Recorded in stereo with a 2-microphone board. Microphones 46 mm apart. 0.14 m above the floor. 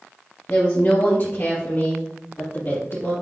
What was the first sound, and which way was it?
A woman speaking, 30° left (ahead or behind).